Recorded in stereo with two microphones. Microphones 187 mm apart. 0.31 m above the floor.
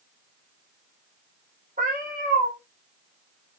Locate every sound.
1.8 s a cat meowing: 50° right (ahead or behind), 5 m